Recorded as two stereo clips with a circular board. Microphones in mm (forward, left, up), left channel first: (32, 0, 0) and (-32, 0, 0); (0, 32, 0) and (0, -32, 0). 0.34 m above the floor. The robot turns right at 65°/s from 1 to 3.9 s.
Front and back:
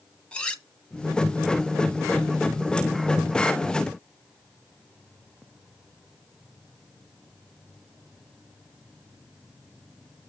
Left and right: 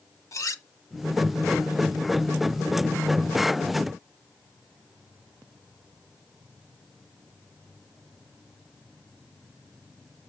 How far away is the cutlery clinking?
About 1.2 m.